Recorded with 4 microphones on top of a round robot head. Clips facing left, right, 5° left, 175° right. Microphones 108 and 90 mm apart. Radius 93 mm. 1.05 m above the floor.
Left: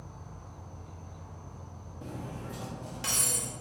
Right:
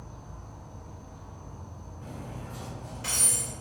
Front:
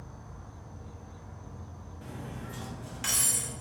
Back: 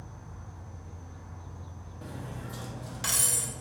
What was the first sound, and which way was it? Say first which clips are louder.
An insect: right 2 dB, even; 45° right.